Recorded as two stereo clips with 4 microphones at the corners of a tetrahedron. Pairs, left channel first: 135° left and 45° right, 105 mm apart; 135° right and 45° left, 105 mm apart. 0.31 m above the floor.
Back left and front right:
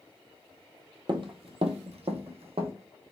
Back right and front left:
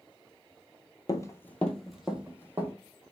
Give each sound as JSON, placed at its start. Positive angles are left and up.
{"t": 1.1, "sound": "running footsteps", "azimuth_deg": -85, "distance_m": 0.6}